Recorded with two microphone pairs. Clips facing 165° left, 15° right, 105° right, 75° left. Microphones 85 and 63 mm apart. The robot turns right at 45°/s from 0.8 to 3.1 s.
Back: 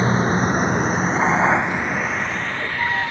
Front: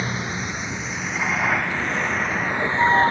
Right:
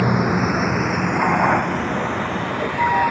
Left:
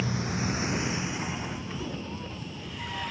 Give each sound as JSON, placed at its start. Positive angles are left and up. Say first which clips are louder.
{"t": 0.0, "sound": "a vehicle", "louder": "back 9 dB, right 12 dB", "azimuth_deg": -140}